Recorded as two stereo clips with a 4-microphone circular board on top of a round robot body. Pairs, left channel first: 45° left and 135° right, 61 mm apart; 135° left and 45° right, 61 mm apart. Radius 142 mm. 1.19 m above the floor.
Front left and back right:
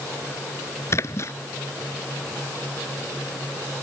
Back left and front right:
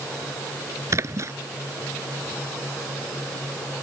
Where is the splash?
Straight ahead.